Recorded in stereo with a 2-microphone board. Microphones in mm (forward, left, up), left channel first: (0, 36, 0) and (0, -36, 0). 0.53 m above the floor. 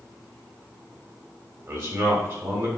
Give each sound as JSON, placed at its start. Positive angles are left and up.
{"t": 1.7, "sound": "a man speaking", "side_deg": -45, "distance_m": 1.6}